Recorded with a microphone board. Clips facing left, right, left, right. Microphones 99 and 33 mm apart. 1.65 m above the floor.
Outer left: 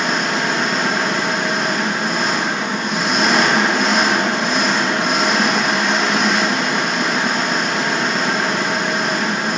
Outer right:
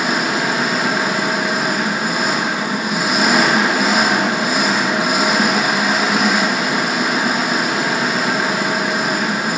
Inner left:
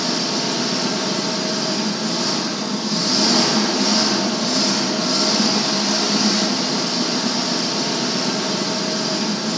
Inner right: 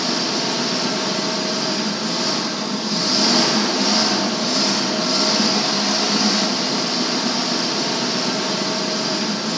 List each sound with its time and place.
0.0 s an engine running: 5° right (ahead or behind), 1.1 m